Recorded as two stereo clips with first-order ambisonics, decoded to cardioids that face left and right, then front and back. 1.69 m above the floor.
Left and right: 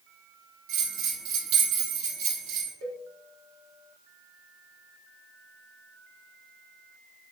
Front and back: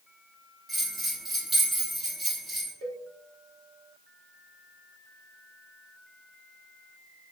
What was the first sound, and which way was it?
A bell, 95° right.